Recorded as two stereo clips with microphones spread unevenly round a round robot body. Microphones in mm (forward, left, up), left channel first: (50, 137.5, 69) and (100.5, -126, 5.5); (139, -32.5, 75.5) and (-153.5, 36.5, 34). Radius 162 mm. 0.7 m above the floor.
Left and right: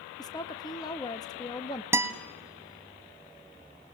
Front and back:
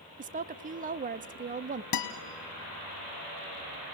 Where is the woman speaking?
170° right, 0.6 m.